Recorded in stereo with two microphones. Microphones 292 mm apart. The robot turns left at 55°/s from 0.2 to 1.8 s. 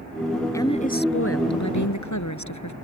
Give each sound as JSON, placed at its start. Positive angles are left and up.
{"t": 0.5, "sound": "a woman speaking", "azimuth_deg": 170}